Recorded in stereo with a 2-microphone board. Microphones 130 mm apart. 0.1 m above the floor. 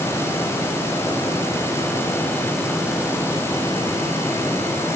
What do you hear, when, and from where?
Only background noise.